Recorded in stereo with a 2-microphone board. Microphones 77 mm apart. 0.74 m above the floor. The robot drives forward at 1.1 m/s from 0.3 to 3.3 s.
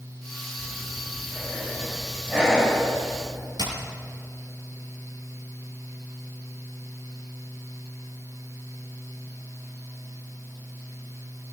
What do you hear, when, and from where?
0.6 s breathing: 20° right (ahead or behind), 2.5 m; by 3.5 s 10° right (ahead or behind), 5.5 m
3.6 s hammering: 70° right (ahead or behind), 7 m